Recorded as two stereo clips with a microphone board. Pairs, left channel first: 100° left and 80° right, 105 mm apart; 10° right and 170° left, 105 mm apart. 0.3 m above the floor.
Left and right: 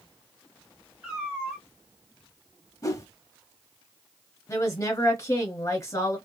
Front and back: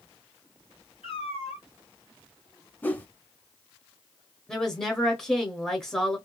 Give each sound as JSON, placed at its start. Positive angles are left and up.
{"t": 1.0, "sound": "a cat meowing", "azimuth_deg": 0, "distance_m": 1.5}
{"t": 2.8, "sound": "a whoosh", "azimuth_deg": 55, "distance_m": 0.5}
{"t": 4.5, "sound": "a woman speaking", "azimuth_deg": 70, "distance_m": 1.2}